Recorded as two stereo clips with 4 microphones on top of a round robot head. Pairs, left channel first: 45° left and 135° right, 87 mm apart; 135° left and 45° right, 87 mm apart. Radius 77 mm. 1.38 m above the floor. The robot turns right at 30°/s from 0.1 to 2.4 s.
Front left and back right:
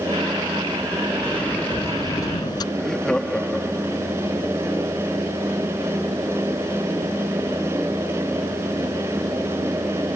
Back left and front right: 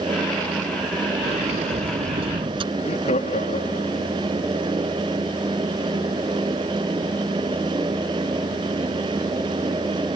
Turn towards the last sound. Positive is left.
turn(degrees=130)